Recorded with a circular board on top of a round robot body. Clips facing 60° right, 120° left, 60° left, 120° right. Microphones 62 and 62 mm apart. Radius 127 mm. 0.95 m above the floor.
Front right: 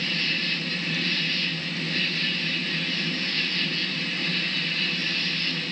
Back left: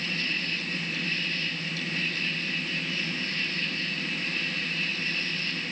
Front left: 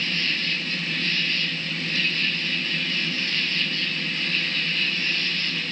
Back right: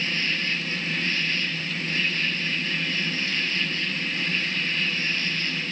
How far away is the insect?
About 4.5 m.